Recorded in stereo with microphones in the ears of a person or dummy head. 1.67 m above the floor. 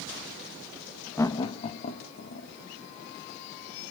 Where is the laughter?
15° left (ahead or behind), 0.6 m; by 2.5 s 55° left (ahead or behind), 1.6 m.